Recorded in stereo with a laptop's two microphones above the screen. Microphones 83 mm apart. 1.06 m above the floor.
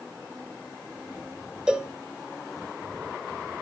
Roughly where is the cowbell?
Centre.